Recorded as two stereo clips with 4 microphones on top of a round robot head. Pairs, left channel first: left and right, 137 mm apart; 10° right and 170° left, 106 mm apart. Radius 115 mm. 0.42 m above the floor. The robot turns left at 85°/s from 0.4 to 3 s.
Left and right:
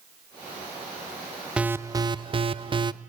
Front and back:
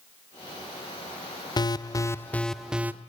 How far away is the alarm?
About 0.8 m.